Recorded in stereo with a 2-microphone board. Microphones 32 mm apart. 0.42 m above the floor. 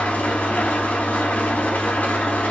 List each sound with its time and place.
0.0 s an engine running: 65° left (ahead or behind), 0.8 m